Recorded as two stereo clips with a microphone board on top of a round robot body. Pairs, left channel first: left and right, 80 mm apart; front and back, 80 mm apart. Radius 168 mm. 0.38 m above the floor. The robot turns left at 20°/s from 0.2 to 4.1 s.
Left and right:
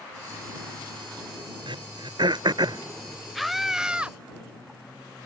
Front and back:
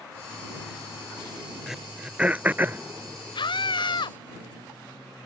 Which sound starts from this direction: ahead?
A scream, at 3.4 s.